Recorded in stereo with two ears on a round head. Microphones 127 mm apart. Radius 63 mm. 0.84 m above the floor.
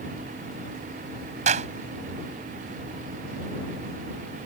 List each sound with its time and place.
1.5 s a clap: 55° right (ahead or behind)